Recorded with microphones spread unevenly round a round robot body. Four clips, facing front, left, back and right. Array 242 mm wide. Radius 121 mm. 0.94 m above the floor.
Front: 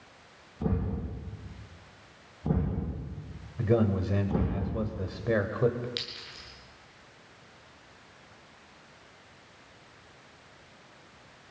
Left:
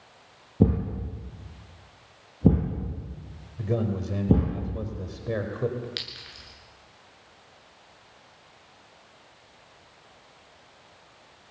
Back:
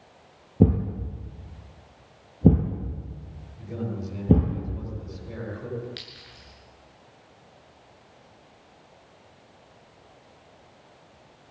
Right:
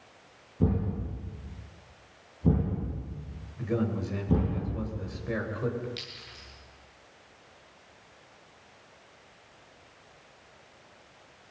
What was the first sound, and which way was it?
A thud, 150° left.